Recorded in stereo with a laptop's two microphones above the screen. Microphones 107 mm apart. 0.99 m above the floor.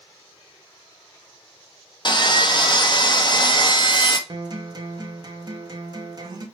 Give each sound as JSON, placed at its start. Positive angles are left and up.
{"t": 2.0, "sound": "sawing", "side_deg": 45, "distance_m": 0.5}
{"t": 4.3, "sound": "a guitar", "side_deg": -40, "distance_m": 0.6}